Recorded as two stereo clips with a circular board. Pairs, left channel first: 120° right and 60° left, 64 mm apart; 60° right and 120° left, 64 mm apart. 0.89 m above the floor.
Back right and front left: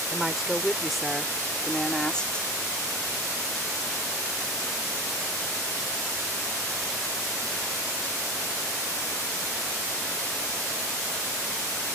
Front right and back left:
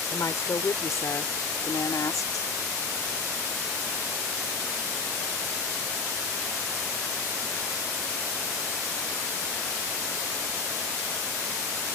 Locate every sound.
0.1 s a woman speaking: 20° right; by 2.5 s 50° right